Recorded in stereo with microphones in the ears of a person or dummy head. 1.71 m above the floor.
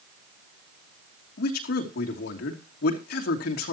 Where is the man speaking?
60° left (ahead or behind), 2.5 m.